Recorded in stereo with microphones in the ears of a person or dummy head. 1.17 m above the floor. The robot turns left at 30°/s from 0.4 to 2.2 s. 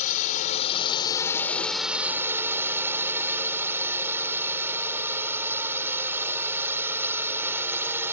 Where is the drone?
40° left; by 8.1 s 15° right.